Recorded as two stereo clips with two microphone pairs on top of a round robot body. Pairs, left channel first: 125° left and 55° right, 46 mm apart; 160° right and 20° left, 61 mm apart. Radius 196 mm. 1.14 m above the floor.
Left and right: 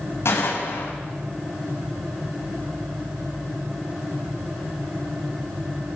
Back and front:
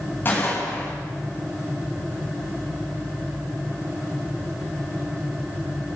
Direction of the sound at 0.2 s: 145° left.